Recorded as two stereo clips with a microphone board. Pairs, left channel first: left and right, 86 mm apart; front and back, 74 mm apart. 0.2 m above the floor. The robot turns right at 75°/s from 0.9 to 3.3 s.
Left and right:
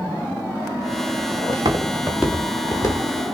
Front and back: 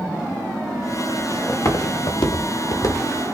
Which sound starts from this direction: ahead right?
Footsteps, at 1.5 s.